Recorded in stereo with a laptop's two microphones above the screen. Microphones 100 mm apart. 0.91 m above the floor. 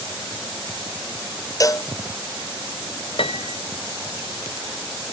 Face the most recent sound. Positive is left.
turn(degrees=70)  # may be behind; listen again after turning